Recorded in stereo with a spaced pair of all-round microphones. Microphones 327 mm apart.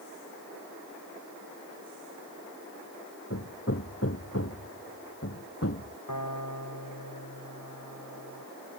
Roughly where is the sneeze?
I don't hear a sneeze.